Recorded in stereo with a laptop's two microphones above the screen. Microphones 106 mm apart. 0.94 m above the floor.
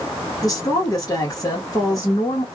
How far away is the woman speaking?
About 1.4 m.